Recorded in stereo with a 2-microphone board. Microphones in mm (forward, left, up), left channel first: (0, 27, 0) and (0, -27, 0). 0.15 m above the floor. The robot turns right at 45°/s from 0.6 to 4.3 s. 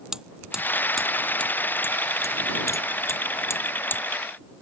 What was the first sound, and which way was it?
Hammering, 10° right (ahead or behind).